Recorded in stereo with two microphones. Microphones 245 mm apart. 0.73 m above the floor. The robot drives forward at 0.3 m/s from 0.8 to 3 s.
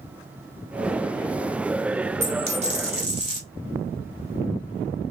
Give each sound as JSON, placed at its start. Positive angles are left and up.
{"t": 2.2, "sound": "a dropped coin", "side_deg": -30, "distance_m": 0.7}